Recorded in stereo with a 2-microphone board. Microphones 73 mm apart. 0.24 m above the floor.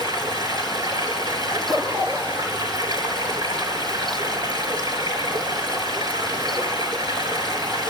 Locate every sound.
0.0 s running water: 75° right (ahead or behind), 3 m
1.5 s a zipper: 60° right (ahead or behind), 6.5 m